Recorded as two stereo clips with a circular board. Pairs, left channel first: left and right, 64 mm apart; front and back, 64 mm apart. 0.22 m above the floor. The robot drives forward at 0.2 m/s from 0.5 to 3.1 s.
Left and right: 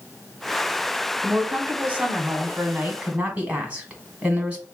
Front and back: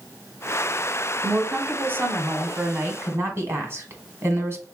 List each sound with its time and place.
1.2 s a woman speaking: 140° right, 1.2 m; by 4.7 s 150° right, 1.4 m